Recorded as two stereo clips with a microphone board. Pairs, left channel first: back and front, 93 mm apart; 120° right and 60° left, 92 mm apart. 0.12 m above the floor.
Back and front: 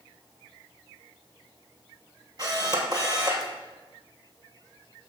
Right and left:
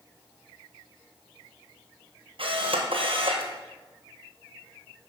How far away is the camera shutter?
About 1.3 m.